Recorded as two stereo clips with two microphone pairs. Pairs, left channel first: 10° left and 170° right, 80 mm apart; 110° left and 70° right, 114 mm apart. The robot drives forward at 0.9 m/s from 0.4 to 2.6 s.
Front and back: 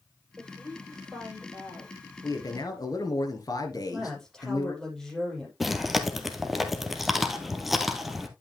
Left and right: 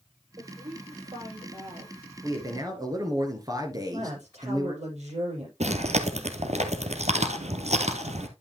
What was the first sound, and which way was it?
A woman speaking, 60° right.